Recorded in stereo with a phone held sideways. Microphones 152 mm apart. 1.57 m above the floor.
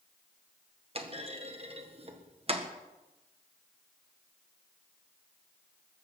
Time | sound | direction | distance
0.9 | a clunk | 40° right (ahead or behind) | 1.6 m